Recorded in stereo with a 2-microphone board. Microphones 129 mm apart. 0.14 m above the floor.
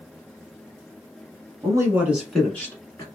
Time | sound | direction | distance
1.6 | a man speaking | 30° right (ahead or behind) | 1.2 m